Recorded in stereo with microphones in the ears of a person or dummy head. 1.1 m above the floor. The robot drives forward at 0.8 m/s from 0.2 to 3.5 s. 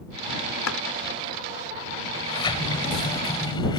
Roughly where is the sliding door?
Left.